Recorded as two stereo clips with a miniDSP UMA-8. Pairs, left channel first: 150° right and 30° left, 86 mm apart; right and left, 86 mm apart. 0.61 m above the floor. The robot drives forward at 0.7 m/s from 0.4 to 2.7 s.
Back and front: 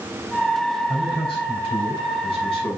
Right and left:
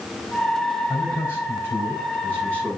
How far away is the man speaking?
About 4 m.